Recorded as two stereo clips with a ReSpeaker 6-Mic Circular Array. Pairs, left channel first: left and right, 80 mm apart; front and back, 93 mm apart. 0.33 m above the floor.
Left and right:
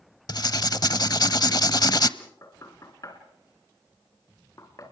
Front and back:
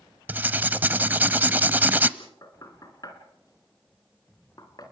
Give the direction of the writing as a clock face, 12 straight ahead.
8 o'clock.